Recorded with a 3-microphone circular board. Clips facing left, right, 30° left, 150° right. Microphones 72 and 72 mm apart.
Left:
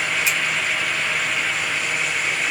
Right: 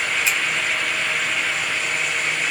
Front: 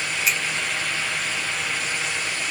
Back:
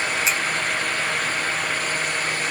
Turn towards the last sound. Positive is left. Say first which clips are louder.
# right 1 dB, front 2 dB
turn(degrees=155)